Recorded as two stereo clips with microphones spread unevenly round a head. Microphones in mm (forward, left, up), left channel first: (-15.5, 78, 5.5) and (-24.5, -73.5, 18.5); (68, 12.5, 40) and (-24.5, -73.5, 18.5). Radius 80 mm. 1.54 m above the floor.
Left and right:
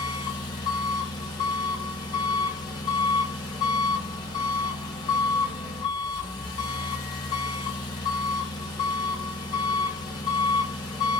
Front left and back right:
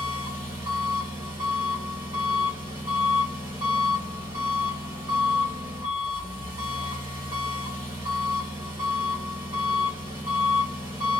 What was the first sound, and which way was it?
An engine running, 145° left.